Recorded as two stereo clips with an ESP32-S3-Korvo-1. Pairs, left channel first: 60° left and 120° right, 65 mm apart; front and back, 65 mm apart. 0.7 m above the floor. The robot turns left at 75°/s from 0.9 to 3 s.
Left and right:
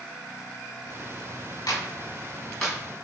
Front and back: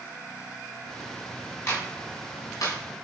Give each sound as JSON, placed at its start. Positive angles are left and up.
{"t": 1.7, "sound": "a clap", "azimuth_deg": 55, "distance_m": 5.0}